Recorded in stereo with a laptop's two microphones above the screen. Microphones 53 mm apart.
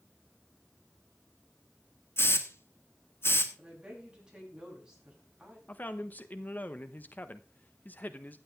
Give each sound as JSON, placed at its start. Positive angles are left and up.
{"t": 2.2, "sound": "a hiss", "side_deg": 50, "distance_m": 1.5}
{"t": 3.6, "sound": "a woman speaking", "side_deg": -15, "distance_m": 7.0}
{"t": 5.7, "sound": "a man speaking", "side_deg": 35, "distance_m": 1.0}